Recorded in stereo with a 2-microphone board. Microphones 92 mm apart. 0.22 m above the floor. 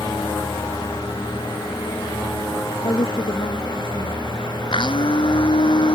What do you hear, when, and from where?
2.8 s a woman speaking: 70° left (ahead or behind)
4.7 s a blender: 65° left (ahead or behind)